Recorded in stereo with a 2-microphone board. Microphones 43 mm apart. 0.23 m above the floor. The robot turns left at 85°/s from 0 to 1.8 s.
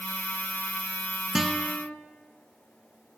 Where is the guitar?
170° right, 0.8 m; by 1.9 s 150° left, 0.8 m.